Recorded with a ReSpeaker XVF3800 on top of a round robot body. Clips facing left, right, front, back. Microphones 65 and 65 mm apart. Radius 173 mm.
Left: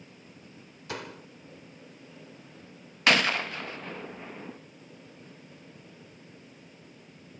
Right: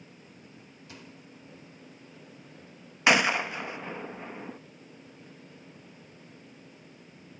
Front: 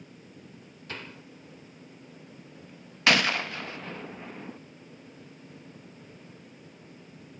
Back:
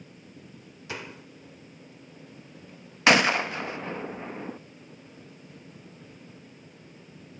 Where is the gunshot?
145° right.